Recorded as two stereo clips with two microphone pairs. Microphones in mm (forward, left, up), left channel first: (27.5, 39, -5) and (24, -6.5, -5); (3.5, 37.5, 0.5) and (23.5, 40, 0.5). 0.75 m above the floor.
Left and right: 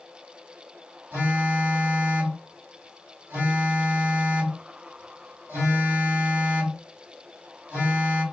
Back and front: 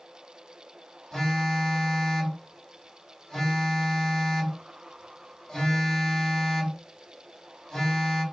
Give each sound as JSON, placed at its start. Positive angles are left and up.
{"t": 1.1, "sound": "a phone buzzing", "azimuth_deg": -125, "distance_m": 2.0}